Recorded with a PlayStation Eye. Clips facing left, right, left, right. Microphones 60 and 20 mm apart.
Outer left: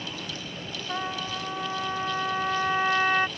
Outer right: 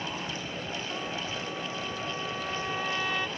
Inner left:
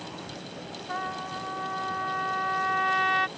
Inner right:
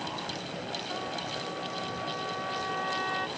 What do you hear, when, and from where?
0.9 s a trumpet: 55° left (ahead or behind)